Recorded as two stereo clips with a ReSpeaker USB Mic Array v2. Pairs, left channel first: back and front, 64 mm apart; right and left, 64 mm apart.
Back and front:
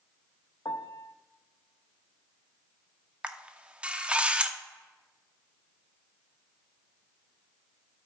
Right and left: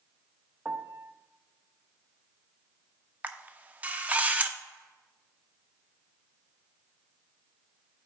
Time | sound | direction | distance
0.7 | a piano | 150° left | 0.5 m
3.2 | a camera shutter | 55° left | 0.6 m